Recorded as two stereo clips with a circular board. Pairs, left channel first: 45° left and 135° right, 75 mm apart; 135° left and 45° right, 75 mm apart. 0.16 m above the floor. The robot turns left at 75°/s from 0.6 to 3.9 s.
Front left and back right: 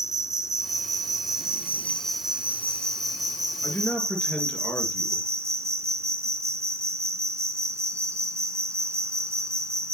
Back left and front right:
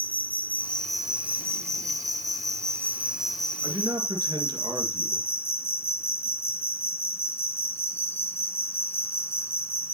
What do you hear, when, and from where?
0.0 s an insect: 70° left, 0.9 m; by 9.9 s 175° right, 0.9 m
3.6 s a man speaking: 10° right, 2.5 m; by 5.3 s 30° right, 2.5 m